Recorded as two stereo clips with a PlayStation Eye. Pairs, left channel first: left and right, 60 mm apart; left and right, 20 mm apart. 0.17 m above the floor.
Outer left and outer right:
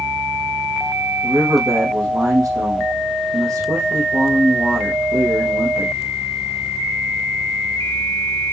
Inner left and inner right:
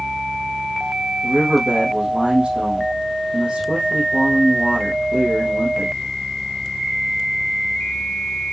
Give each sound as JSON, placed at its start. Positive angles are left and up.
{"t": 1.2, "sound": "a man speaking", "side_deg": -70, "distance_m": 3.0}